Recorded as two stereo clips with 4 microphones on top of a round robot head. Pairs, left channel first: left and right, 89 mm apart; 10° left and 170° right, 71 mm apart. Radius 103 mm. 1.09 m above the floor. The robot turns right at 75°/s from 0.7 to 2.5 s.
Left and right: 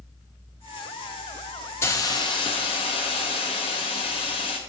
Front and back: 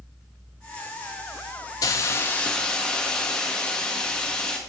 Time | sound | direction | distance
1.8 | a hiss | 35° left | 0.5 m